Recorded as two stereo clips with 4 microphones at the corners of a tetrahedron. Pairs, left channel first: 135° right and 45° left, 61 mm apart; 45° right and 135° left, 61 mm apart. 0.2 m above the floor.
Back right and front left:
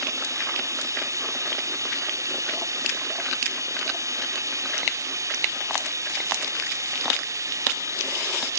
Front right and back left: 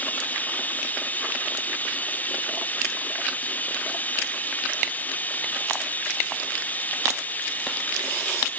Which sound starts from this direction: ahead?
Running water, at 0.0 s.